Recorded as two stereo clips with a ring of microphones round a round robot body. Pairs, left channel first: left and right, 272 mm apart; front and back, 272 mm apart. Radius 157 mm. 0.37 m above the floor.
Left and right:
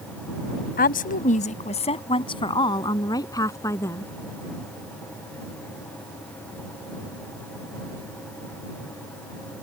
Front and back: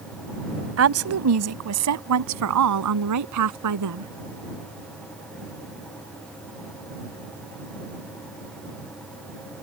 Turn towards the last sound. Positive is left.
turn(degrees=170)